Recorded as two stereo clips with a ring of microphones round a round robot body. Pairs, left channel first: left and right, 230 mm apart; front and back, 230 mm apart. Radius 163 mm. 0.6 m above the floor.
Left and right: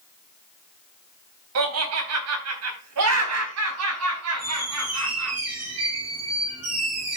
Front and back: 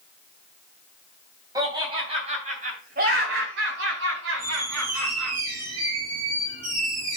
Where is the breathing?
I don't hear breathing.